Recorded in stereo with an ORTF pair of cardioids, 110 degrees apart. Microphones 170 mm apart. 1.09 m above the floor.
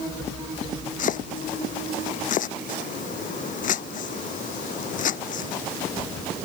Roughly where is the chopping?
Ahead left.